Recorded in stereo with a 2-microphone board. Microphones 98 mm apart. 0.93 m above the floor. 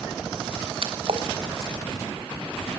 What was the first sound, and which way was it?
A splash, 60° right (ahead or behind).